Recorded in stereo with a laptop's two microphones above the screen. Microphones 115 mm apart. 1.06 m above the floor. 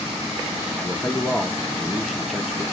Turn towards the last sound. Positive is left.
turn(degrees=0)  # may be behind; listen again after turning